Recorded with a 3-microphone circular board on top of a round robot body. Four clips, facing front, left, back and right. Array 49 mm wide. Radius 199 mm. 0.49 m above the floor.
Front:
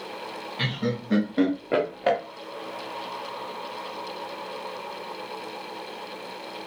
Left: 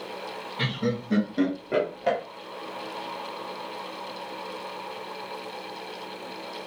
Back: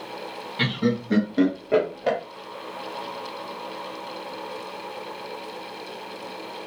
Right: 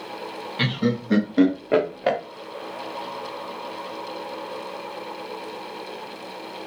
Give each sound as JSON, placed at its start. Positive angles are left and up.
{"t": 0.6, "sound": "laughter", "azimuth_deg": -110, "distance_m": 1.3}